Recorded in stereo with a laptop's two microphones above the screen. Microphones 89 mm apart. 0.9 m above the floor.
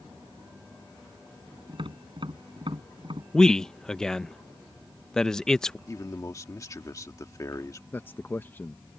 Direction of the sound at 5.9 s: 40° left (ahead or behind).